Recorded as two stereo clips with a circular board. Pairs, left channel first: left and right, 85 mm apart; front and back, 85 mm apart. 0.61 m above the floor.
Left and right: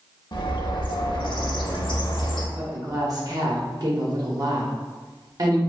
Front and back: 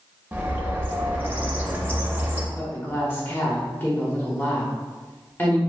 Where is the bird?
115° left, 0.6 m.